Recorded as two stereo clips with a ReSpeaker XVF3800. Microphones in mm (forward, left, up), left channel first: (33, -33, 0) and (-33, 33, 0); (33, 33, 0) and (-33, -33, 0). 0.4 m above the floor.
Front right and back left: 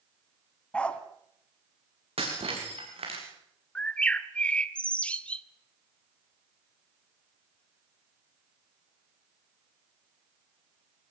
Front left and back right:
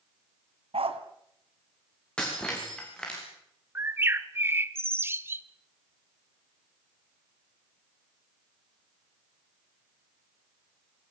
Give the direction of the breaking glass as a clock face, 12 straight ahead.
8 o'clock.